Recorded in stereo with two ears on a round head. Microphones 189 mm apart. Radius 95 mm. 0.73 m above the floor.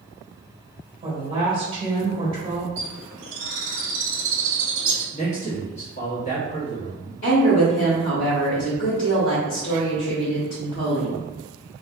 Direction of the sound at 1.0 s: 25° right (ahead or behind).